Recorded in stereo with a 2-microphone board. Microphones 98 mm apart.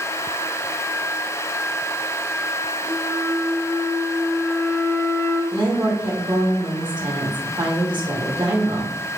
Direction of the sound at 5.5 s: 55° right (ahead or behind).